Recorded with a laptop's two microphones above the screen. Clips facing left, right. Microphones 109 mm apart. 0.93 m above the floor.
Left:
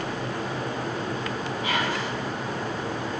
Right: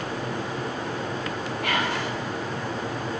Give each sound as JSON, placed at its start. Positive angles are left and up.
{"t": 1.6, "sound": "whispering", "side_deg": -70, "distance_m": 4.0}